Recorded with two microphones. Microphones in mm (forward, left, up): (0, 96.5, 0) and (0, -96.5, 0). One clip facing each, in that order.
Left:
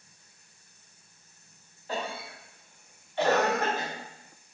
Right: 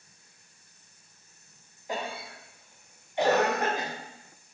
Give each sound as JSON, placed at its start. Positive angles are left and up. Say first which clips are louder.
{"t": 1.9, "sound": "a cough", "louder": "even", "side_deg": -15, "distance_m": 1.0}